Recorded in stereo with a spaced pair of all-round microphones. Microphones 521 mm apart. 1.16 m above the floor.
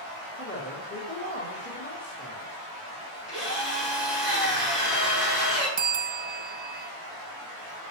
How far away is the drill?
About 6 m.